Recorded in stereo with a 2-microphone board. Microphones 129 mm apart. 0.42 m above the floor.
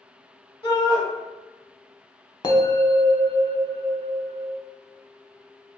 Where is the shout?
35° left (ahead or behind), 1.0 m.